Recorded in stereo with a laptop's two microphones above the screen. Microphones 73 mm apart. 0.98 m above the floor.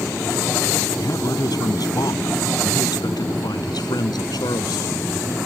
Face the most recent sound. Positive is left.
turn(degrees=85)